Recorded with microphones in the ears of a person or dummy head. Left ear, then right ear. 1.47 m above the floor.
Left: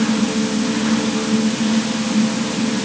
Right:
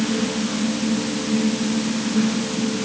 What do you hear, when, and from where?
Only background noise.